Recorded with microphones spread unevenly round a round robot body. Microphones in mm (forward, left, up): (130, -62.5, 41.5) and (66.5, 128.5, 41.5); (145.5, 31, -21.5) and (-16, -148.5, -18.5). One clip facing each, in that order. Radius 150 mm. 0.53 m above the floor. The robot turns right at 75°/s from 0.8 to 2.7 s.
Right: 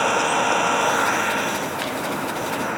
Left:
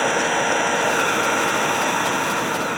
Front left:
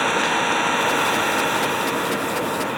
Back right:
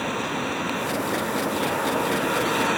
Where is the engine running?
35° left; by 2.8 s 175° left.